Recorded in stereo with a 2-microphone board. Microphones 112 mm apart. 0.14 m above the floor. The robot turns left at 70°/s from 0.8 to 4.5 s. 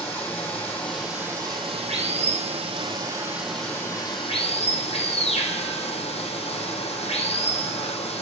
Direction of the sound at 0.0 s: 15° left.